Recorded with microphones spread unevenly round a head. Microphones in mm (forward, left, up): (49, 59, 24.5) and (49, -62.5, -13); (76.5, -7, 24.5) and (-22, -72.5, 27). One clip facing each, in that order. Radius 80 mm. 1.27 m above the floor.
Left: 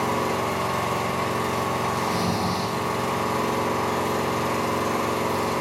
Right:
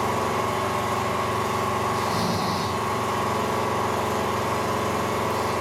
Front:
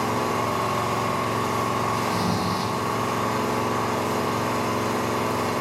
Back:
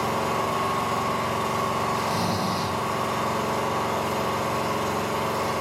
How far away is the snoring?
About 1.4 m.